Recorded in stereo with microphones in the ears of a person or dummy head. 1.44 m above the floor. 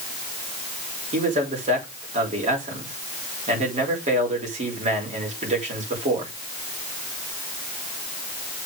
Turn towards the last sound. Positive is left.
turn(degrees=-35)  # may be behind; listen again after turning